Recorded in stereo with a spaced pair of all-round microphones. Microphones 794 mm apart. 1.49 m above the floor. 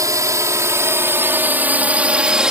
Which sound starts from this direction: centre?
A drone, at 0.0 s.